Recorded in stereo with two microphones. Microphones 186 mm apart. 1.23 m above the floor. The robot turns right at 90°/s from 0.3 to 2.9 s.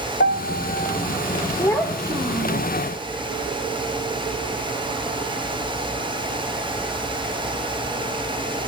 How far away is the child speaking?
About 0.9 m.